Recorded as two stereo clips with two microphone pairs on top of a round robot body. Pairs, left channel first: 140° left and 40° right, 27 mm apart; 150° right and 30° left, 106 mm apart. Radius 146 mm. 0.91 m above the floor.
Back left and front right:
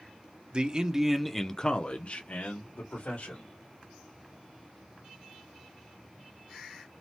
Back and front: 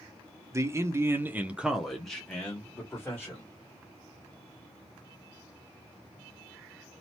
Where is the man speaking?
40° right, 0.8 m; by 3.5 s 145° left, 1.4 m.